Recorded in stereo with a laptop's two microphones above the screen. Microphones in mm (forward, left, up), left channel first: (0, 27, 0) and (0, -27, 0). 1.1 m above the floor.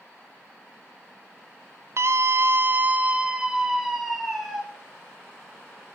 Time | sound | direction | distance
2.0 | a scream | 50° right (ahead or behind) | 0.9 m